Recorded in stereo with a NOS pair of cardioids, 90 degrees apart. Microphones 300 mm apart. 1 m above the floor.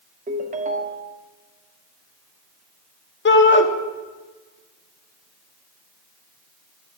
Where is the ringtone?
25° right, 1.3 m.